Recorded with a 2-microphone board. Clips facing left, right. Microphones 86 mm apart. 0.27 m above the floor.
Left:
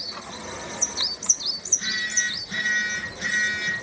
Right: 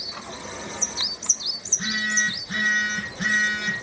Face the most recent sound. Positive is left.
turn(degrees=-50)  # may be behind; listen again after turning